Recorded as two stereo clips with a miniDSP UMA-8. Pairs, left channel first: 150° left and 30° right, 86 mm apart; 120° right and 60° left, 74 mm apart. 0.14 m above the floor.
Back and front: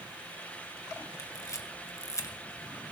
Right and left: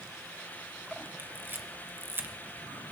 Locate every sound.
1.2 s a camera shutter: 110° left, 1.6 m